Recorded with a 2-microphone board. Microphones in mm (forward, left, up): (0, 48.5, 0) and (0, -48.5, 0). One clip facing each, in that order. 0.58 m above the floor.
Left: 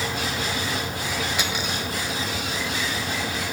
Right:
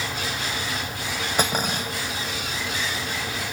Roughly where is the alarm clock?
I don't hear an alarm clock.